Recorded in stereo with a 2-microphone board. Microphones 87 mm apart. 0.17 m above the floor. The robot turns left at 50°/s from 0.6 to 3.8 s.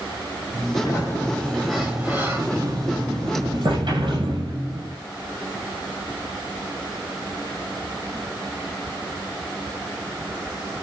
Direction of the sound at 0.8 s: 40° left.